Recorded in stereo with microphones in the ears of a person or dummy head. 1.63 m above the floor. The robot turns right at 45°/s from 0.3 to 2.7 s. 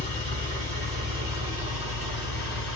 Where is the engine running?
95° right, 1.6 m; by 2.8 s 10° left, 1.6 m.